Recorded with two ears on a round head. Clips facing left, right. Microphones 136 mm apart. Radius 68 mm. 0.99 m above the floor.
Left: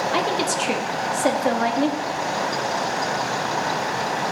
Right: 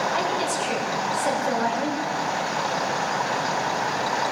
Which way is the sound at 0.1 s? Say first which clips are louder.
Left 2 dB; 75° left (ahead or behind).